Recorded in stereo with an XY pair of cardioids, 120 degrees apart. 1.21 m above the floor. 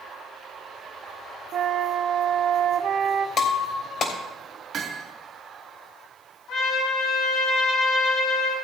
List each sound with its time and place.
1.5 s a flute: 65° right, 1.0 m
3.4 s breaking glass: 50° left, 3 m
4.7 s hammering: 55° right, 2.5 m
6.5 s a trumpet: 65° left, 5.5 m